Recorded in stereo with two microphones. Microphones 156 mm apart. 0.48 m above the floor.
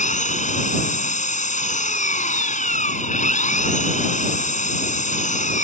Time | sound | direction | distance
0.0 | an engine running | 60° left (ahead or behind) | ?